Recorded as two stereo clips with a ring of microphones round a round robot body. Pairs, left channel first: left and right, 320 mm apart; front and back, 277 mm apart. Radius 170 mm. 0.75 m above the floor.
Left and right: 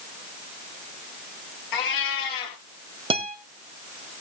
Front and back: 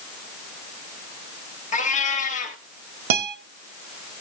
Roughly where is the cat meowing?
Ahead left.